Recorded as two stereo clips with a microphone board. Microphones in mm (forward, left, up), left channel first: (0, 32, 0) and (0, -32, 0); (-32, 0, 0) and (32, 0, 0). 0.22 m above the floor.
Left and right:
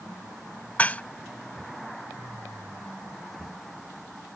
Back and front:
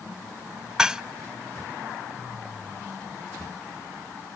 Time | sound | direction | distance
0.8 | dishes clattering | 70° left | ?